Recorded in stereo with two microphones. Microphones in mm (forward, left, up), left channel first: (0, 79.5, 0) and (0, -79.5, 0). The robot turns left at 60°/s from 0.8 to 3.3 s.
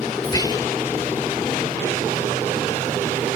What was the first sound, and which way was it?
Whispering, 25° left (ahead or behind).